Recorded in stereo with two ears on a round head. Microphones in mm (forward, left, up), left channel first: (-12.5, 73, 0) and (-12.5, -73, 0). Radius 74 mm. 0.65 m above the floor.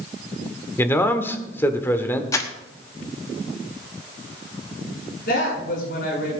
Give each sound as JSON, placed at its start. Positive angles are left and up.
{"t": 0.8, "sound": "a man speaking", "side_deg": 15, "distance_m": 1.4}
{"t": 2.3, "sound": "crumpling", "side_deg": 20, "distance_m": 1.1}
{"t": 5.3, "sound": "a woman speaking", "side_deg": 55, "distance_m": 7.0}